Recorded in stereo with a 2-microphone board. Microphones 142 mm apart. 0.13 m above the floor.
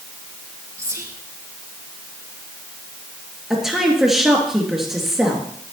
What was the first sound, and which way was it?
Whispering, 20° right (ahead or behind).